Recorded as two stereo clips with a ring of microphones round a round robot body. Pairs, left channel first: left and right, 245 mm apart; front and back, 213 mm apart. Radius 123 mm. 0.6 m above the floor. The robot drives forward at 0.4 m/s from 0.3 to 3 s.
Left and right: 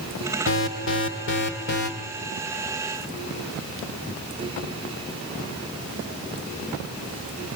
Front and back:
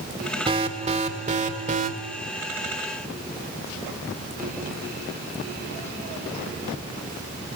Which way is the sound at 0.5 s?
120° left.